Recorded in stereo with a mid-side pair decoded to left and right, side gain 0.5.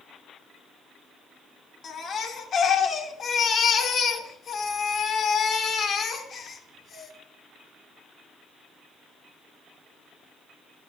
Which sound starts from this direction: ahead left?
A baby crying, at 1.8 s.